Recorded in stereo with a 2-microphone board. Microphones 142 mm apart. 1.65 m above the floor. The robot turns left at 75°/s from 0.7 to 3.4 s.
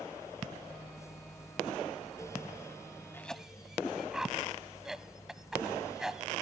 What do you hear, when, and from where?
3.1 s a cough: 15° left (ahead or behind); by 6.3 s 5° right (ahead or behind)